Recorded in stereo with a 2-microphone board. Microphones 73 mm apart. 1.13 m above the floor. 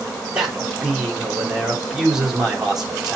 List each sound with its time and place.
0.3 s a man speaking: 5° right (ahead or behind), 3.5 m